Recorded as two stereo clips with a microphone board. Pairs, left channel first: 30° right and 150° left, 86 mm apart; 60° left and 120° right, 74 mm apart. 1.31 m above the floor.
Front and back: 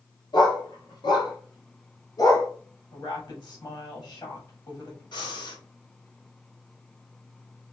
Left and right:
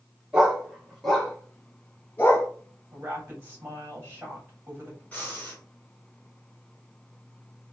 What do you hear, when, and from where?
0.3 s a dog barking: 45° right, 1.4 m; by 2.5 s 5° left, 1.5 m
2.9 s a woman speaking: 55° right, 3 m
5.1 s breathing: 10° right, 1.6 m